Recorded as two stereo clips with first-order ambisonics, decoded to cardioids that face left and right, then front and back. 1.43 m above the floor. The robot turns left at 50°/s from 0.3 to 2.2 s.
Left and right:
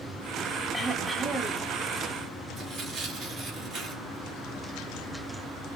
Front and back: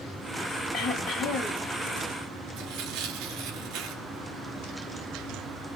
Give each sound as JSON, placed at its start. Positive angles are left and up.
{"t": 0.7, "sound": "throat clearing", "azimuth_deg": 20, "distance_m": 1.1}
{"t": 2.6, "sound": "tearing paper", "azimuth_deg": -155, "distance_m": 2.0}